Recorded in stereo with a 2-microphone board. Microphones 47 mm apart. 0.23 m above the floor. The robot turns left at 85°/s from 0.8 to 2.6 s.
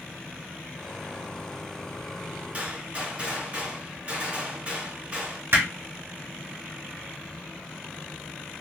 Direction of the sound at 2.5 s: 30° right (ahead or behind).